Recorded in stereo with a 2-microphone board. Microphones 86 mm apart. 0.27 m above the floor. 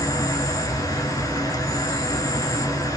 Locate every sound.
0.0 s an insect: 45° left (ahead or behind), 0.7 m